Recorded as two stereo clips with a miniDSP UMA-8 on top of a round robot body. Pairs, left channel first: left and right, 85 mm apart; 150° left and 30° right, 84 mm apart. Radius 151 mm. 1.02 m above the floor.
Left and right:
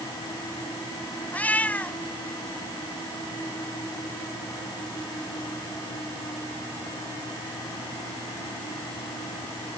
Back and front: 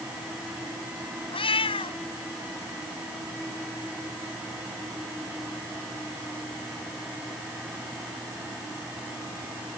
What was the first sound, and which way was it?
A cat meowing, 165° left.